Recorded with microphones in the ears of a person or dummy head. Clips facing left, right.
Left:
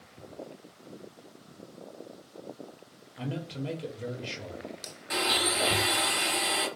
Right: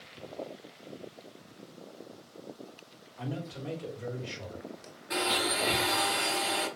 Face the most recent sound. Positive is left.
turn(degrees=50)  # may be behind; listen again after turning